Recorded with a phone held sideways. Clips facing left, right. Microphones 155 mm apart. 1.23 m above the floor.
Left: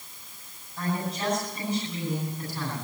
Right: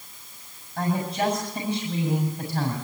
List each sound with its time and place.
0.8 s a woman speaking: 60° right (ahead or behind), 7 m